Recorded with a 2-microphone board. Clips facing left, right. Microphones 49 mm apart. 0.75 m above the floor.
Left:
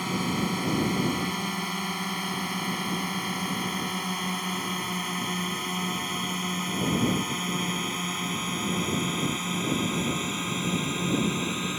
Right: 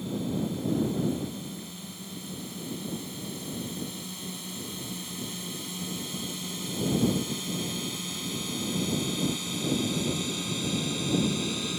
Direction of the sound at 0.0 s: 75° left (ahead or behind).